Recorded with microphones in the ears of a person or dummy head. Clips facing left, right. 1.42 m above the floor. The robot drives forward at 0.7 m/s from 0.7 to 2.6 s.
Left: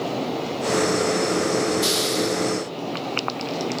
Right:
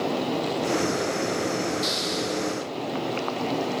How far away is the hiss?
About 3 m.